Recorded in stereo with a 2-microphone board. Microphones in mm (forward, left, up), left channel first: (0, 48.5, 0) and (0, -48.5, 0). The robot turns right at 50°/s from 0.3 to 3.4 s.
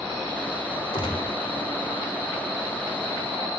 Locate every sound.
0.9 s a gunshot: 65° left (ahead or behind), 0.9 m; by 1.4 s 45° left (ahead or behind), 0.9 m